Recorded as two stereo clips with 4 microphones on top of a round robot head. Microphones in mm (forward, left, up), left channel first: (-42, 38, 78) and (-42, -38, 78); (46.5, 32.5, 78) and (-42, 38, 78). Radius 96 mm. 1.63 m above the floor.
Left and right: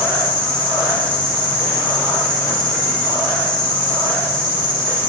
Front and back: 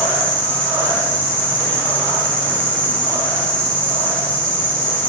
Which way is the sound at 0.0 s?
70° left.